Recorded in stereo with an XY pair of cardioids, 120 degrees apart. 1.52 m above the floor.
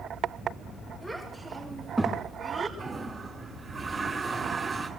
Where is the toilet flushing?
25° right, 6 m.